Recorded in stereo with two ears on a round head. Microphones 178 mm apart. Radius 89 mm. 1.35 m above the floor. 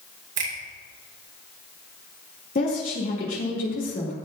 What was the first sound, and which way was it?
A finger snap, 65° right (ahead or behind).